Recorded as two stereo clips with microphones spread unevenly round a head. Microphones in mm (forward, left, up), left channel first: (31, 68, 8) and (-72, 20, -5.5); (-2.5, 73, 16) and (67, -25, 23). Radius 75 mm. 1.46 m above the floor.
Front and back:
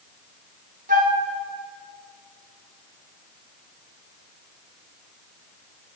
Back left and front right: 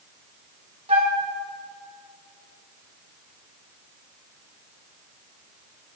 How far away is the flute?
About 1.5 m.